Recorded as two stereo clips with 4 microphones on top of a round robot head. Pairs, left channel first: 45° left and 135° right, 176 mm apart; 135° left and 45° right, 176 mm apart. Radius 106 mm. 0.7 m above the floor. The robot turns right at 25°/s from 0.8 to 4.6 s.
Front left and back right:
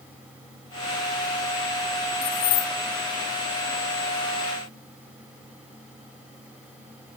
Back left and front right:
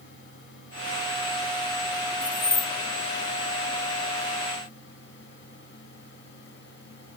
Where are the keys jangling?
50° left; by 2.7 s 65° left.